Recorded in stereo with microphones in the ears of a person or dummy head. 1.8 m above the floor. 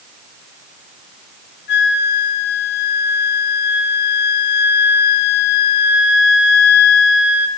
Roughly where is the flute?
Left.